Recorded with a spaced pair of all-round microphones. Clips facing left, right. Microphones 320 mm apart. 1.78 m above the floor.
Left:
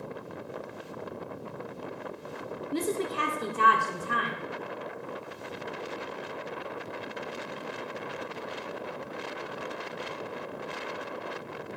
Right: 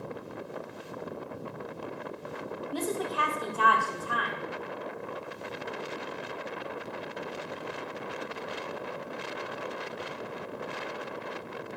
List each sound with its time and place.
2.7 s a woman speaking: 30° left (ahead or behind), 0.8 m